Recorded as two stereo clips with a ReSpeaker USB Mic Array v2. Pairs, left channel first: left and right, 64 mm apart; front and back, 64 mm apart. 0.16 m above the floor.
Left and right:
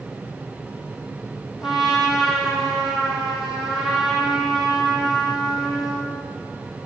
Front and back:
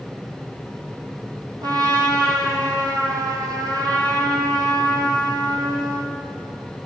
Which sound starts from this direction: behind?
A trumpet, at 1.6 s.